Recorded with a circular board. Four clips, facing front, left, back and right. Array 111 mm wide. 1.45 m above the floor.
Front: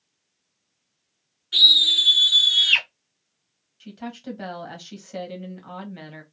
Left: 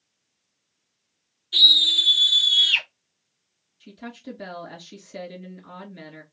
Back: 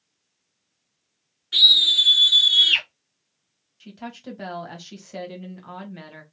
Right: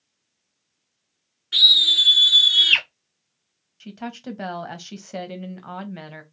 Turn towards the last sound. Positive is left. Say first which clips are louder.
# right 5 dB, front 2 dB
turn(degrees=-90)